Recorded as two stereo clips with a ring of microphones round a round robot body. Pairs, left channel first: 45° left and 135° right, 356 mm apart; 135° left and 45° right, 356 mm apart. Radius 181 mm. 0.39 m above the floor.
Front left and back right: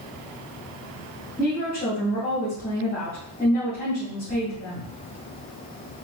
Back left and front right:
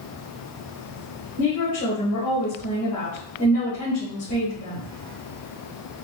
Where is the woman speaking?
110° left, 1.7 m.